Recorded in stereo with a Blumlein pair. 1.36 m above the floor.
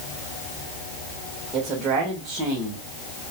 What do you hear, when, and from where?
1.5 s a man speaking: 25° right, 2.5 m